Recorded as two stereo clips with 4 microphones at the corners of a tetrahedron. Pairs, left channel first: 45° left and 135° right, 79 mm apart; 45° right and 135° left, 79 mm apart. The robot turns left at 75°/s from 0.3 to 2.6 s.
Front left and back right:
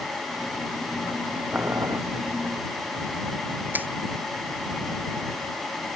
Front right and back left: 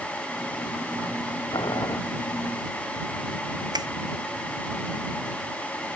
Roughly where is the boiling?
Ahead right.